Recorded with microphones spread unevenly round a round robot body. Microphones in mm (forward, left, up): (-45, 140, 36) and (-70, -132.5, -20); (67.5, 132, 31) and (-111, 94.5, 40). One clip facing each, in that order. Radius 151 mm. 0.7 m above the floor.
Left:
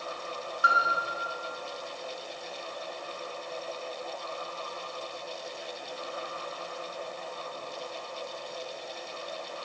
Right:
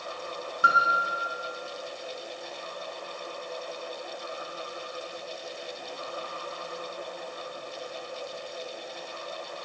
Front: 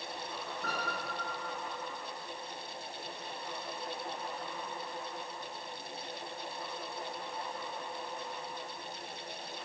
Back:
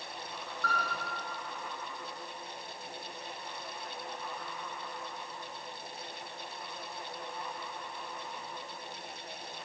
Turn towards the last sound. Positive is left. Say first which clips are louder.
# right 1 dB, back 2 dB
turn(degrees=-65)